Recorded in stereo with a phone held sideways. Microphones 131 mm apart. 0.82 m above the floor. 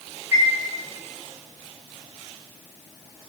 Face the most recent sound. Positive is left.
turn(degrees=-15)  # may be behind; listen again after turning